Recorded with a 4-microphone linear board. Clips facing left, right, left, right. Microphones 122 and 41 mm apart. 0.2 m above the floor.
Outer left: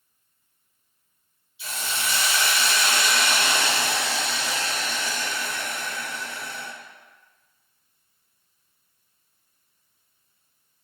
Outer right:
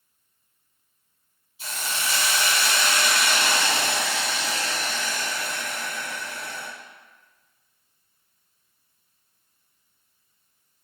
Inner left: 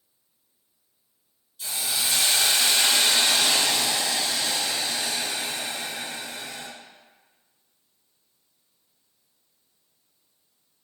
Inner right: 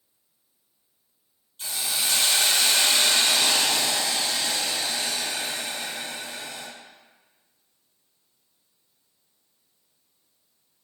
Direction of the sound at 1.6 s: 40° right (ahead or behind).